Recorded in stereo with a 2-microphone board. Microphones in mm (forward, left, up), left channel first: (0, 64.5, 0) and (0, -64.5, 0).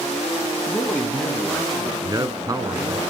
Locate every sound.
0.7 s a woman speaking: 10° left (ahead or behind), 1.6 m
2.0 s a man speaking: 30° right (ahead or behind), 1.3 m